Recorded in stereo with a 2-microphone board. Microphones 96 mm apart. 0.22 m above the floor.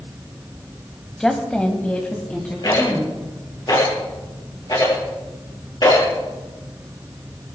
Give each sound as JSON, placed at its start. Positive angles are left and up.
{"t": 1.2, "sound": "a woman speaking", "side_deg": 5, "distance_m": 1.1}
{"t": 2.6, "sound": "a rattle", "side_deg": 50, "distance_m": 5.5}